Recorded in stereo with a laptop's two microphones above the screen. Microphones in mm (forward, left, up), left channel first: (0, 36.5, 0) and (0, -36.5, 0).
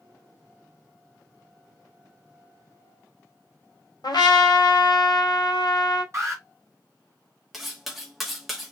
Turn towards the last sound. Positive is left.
turn(degrees=0)  # may be behind; listen again after turning